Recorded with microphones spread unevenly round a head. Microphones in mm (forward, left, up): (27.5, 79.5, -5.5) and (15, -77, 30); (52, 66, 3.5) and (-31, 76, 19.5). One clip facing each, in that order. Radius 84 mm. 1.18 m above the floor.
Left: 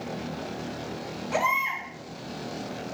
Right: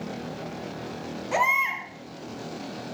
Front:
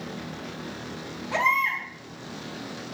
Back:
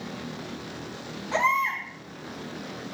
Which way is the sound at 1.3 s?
95° right.